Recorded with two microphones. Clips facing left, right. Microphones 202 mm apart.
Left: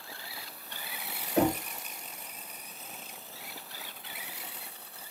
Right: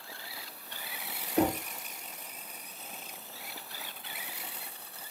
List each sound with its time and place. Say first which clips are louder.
1.4 s knocking: left 1 dB; 85° left, 1.3 m